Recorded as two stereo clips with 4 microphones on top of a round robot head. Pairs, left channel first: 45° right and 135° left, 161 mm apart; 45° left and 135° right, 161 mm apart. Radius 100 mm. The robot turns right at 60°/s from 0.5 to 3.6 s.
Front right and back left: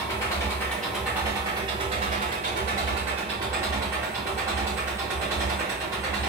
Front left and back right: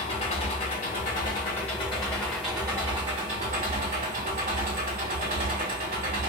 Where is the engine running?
20° left, 0.9 m; by 6.3 s 155° right, 0.9 m.